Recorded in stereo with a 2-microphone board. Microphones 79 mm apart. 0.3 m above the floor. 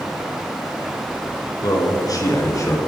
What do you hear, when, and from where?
1.6 s a man speaking: 50° left (ahead or behind), 4 m; by 2.8 s 40° left (ahead or behind), 4 m